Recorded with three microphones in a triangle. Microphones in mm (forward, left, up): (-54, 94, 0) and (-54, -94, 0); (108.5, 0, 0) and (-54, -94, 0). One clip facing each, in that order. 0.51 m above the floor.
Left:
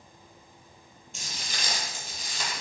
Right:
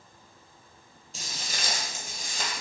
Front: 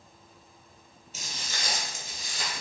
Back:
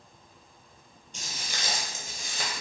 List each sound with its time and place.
1.1 s footsteps: 55° right, 0.7 m; by 2.6 s 135° right, 1.0 m